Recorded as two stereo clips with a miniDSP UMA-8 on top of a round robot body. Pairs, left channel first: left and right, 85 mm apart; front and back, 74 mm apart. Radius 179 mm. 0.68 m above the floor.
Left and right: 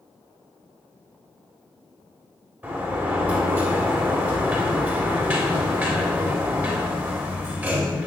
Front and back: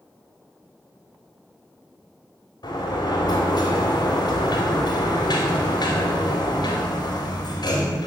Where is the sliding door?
20° right, 3 m.